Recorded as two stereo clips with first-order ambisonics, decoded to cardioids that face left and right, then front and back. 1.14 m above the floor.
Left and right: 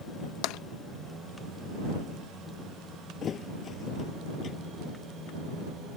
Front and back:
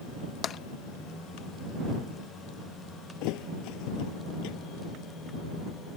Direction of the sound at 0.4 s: 60° left.